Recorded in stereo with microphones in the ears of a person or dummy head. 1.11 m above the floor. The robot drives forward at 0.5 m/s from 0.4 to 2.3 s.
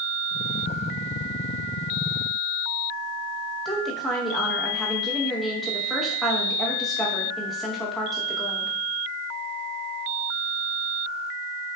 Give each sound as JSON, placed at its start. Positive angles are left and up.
{"t": 3.6, "sound": "a woman speaking", "side_deg": 0, "distance_m": 0.9}